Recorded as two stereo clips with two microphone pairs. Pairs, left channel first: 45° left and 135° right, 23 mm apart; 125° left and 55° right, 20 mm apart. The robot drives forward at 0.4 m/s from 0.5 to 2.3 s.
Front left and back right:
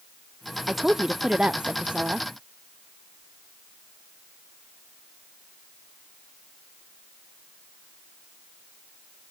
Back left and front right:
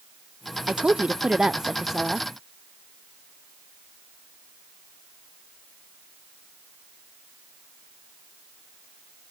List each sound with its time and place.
0.7 s a woman speaking: 60° right, 0.5 m; by 2.3 s 130° right, 0.6 m